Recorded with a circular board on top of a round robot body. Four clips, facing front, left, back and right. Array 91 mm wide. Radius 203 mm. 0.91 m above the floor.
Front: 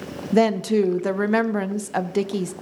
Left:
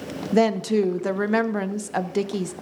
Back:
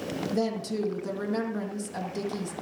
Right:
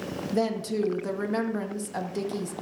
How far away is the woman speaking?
About 0.9 m.